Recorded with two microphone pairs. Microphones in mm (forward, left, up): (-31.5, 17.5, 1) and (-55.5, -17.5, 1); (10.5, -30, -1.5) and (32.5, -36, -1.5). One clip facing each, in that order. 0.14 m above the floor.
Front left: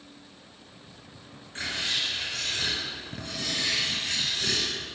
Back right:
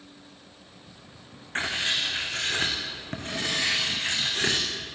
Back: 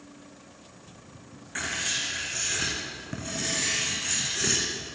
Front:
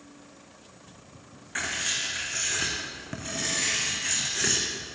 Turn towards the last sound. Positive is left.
turn(degrees=-90)